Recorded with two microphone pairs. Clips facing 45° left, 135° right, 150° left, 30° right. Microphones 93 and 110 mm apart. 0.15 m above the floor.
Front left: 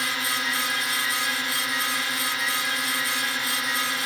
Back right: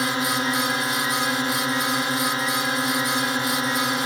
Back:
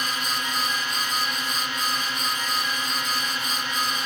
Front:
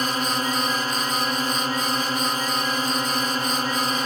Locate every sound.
0.0 s a drone: 80° right